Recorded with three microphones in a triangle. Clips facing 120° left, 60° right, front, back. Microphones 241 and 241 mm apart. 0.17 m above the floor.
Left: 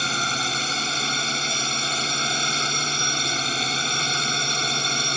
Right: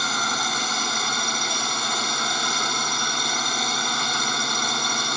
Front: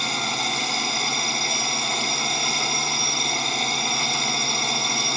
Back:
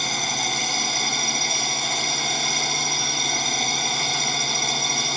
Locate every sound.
0.0 s a drone: 95° left